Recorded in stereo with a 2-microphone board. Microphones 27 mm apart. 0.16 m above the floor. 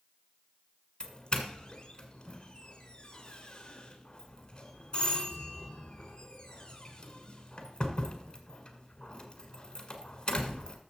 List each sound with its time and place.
1.0 s a doorbell: 30° left (ahead or behind), 1.8 m